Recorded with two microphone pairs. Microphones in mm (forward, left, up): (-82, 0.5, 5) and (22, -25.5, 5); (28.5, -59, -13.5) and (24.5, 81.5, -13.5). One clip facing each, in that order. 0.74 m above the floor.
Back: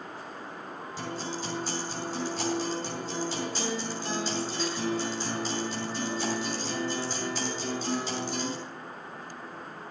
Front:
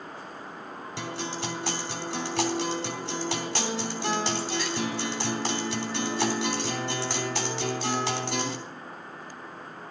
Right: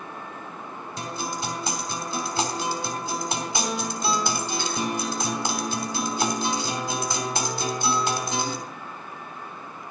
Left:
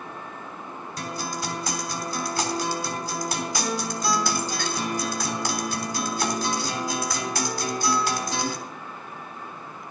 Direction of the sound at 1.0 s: 20° right.